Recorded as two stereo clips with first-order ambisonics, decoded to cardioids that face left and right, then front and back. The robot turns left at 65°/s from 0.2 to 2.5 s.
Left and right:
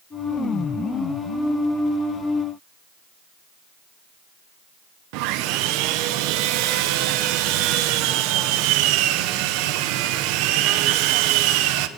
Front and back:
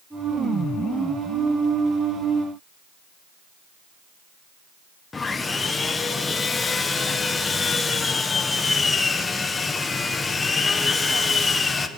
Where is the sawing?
75° right, 1.1 m.